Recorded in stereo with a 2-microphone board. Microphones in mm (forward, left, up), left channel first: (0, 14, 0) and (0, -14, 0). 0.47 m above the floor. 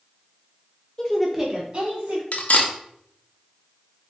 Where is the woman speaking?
25° left (ahead or behind), 0.8 m; by 2.2 s 50° right (ahead or behind), 1.4 m.